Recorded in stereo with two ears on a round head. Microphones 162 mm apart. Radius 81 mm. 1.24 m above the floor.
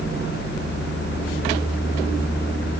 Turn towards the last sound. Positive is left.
No sound to turn to.